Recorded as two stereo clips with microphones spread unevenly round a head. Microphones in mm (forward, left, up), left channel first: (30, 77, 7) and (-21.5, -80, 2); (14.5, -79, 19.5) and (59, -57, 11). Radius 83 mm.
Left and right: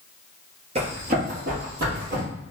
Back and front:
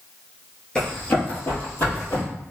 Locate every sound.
0.8 s running footsteps: 120° right, 1.1 m; by 2.2 s 140° right, 2.5 m